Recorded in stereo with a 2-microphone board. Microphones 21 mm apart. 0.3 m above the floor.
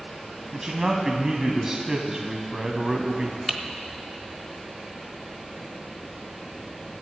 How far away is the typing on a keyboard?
About 1.1 m.